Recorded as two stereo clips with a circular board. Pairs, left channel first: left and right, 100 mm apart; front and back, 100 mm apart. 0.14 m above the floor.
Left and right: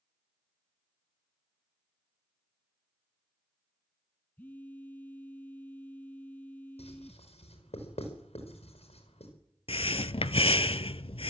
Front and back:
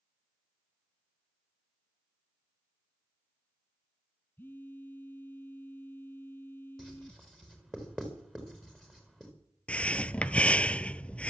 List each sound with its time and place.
4.4 s a phone buzzing: 40° left, 0.6 m
6.8 s writing: 85° left, 5 m
9.7 s breathing: 75° left, 0.5 m